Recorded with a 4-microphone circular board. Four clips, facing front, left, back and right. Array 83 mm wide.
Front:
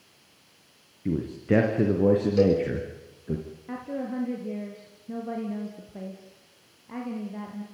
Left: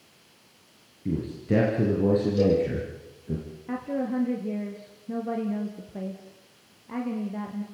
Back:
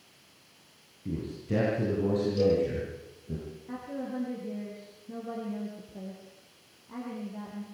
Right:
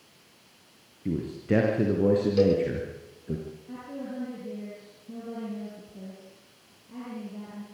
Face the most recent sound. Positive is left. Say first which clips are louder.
# left 11 dB, front 4 dB
turn(degrees=60)